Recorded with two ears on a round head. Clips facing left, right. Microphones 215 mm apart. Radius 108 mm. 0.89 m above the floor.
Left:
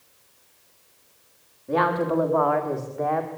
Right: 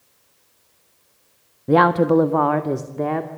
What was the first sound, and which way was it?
A woman speaking, 70° right (ahead or behind).